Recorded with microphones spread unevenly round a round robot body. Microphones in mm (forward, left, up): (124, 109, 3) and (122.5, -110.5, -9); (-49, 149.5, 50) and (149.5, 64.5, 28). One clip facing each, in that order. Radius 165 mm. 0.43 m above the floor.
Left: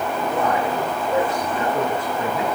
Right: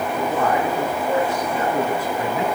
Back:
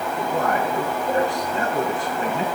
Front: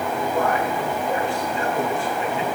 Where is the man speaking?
140° right, 4.5 m.